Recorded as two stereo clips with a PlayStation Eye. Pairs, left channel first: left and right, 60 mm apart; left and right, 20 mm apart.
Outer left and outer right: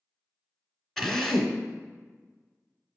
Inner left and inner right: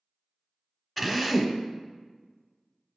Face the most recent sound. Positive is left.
turn(degrees=5)  # may be behind; listen again after turning